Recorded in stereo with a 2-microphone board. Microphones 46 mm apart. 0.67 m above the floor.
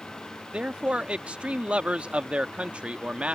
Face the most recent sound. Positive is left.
turn(degrees=-25)  # may be behind; listen again after turning